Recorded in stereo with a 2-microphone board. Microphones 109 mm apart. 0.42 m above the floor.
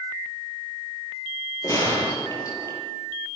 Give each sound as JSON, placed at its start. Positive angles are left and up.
{"t": 1.6, "sound": "a gunshot", "side_deg": 30, "distance_m": 5.5}